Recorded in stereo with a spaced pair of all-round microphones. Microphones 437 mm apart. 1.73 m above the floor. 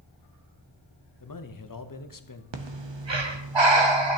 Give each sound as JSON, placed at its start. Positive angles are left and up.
{"t": 1.2, "sound": "a man speaking", "side_deg": 45, "distance_m": 0.7}
{"t": 2.5, "sound": "breathing", "side_deg": -70, "distance_m": 0.8}